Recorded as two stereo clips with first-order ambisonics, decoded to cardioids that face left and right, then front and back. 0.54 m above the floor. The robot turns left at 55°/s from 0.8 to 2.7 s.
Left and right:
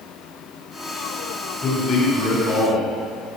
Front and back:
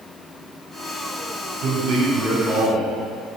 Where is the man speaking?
160° left, 1.9 m; by 2.9 s 100° left, 1.9 m.